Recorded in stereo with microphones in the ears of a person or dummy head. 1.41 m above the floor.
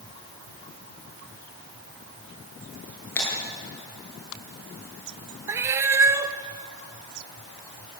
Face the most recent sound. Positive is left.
turn(degrees=-15)  # may be behind; listen again after turning